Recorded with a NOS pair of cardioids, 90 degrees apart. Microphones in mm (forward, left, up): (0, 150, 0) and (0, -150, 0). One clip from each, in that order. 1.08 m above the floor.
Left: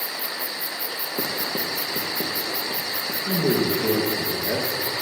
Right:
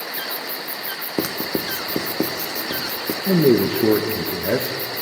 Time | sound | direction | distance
1.2 | writing | 50° right | 0.6 m
3.3 | a man speaking | 50° right | 0.7 m